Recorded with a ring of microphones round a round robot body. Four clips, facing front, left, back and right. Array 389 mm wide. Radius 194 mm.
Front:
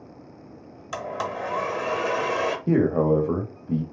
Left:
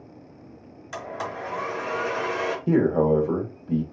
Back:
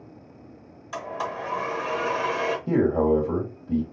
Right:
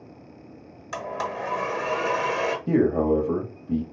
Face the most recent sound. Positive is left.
turn(degrees=35)